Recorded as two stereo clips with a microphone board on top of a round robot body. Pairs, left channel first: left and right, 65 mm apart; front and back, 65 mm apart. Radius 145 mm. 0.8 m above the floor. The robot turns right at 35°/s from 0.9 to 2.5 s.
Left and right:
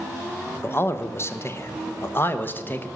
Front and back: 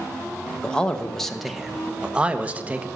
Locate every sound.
0.6 s a man speaking: 70° left, 1.0 m; by 2.9 s 125° left, 1.0 m